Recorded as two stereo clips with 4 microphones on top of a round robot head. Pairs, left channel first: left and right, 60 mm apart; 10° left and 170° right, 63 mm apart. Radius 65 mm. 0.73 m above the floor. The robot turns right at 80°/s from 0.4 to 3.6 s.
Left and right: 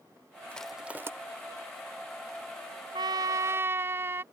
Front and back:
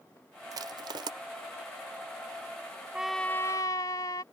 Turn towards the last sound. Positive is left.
turn(degrees=-40)